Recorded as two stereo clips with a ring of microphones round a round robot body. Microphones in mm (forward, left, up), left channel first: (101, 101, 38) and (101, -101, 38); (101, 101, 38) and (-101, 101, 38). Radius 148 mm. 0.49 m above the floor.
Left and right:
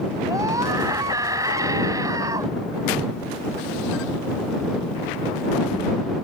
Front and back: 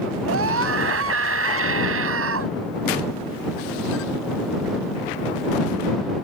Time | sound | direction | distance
0.3 | a scream | 170° right | ?